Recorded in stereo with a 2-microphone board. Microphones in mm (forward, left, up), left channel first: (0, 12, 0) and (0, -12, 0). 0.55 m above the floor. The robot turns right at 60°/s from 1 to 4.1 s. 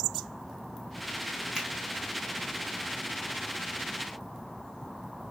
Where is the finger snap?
10° right (ahead or behind), 2 m; by 1.7 s 5° right (ahead or behind), 2 m.